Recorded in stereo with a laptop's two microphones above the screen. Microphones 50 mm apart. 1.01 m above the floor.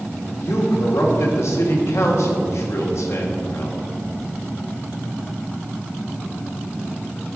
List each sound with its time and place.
0.4 s a man speaking: 65° left (ahead or behind), 1.6 m